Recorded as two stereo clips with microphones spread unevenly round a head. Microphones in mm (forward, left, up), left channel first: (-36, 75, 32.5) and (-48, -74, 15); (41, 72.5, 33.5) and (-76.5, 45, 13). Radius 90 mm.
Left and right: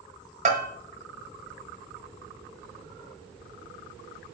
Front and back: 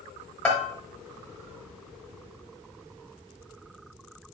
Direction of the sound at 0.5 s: 55° right.